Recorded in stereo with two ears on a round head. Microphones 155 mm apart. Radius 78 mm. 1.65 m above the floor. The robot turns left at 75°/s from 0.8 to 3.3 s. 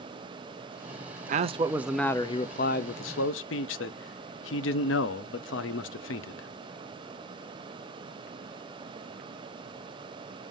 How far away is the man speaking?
About 0.5 m.